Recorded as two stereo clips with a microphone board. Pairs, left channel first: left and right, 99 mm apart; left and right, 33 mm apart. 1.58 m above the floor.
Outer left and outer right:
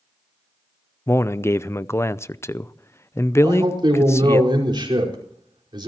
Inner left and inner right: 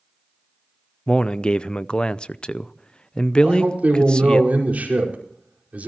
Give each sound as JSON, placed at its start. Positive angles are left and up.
{"t": 1.1, "sound": "a man speaking", "side_deg": 25, "distance_m": 0.5}
{"t": 3.4, "sound": "a man speaking", "side_deg": -50, "distance_m": 5.0}